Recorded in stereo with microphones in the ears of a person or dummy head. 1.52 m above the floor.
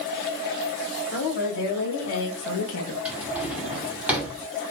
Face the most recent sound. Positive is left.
turn(degrees=-5)  # may be behind; listen again after turning